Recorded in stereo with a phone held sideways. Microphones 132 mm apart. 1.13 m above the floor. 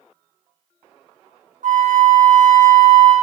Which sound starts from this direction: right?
A flute, at 1.6 s.